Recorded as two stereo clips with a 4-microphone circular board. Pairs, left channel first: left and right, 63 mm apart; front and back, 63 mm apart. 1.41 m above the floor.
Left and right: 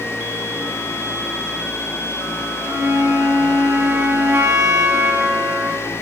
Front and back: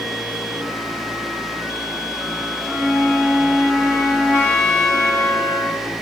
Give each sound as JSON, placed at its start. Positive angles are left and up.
{"t": 2.6, "sound": "a flute", "azimuth_deg": -60, "distance_m": 1.4}